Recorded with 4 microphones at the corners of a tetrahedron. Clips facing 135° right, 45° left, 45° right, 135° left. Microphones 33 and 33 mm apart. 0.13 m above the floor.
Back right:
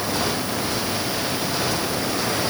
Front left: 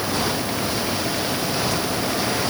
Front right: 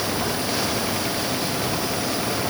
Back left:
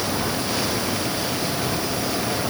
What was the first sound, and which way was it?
Only background noise.